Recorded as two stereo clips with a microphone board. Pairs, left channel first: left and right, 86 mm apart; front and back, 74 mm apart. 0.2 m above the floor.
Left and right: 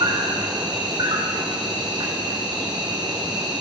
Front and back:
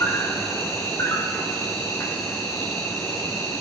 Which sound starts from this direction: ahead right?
An insect, at 0.0 s.